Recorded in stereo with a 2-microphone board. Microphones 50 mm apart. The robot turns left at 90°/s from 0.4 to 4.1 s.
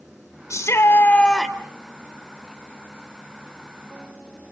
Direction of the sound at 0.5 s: 85° left.